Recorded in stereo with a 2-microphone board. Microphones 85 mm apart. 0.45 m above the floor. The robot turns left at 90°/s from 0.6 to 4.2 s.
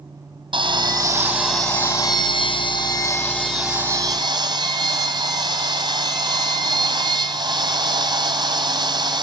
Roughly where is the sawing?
Right.